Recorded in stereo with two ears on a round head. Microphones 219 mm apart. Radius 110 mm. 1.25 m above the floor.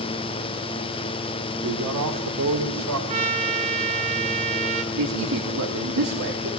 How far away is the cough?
No cough in this recording.